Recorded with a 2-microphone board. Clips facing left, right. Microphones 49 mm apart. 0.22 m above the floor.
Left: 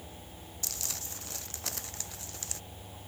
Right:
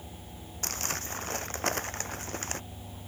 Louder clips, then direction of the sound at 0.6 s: Right 9 dB; 45° right (ahead or behind).